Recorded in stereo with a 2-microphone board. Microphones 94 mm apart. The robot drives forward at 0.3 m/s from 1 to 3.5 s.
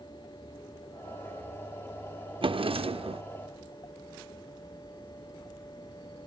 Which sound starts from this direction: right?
A drawer, at 2.4 s.